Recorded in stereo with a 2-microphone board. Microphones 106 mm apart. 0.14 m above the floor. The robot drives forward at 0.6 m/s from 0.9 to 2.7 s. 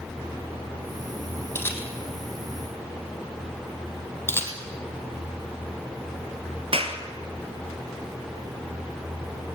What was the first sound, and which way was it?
A camera shutter, 20° left (ahead or behind).